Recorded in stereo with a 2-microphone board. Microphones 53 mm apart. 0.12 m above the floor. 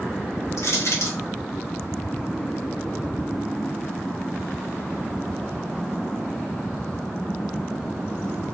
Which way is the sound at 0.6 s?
60° left (ahead or behind).